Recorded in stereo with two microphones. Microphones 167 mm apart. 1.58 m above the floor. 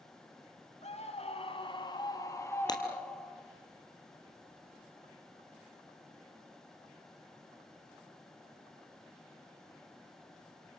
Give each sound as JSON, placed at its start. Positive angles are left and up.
{"t": 0.8, "sound": "a scream", "side_deg": 45, "distance_m": 2.5}
{"t": 2.7, "sound": "breaking glass", "side_deg": 25, "distance_m": 2.5}